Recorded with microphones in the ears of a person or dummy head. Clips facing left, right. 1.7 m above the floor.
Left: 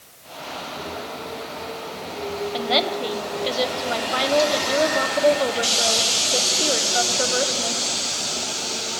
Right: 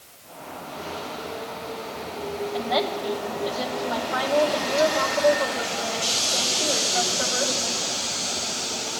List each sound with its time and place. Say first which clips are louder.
2.5 s a woman speaking: left 2 dB; 35° left (ahead or behind), 1.7 m